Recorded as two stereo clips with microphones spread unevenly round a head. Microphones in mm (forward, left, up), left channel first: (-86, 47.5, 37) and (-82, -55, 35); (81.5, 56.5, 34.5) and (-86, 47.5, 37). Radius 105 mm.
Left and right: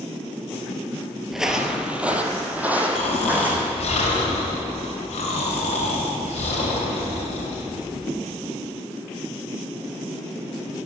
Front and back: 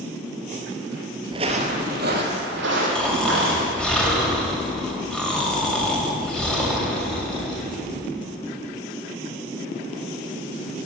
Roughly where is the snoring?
Left.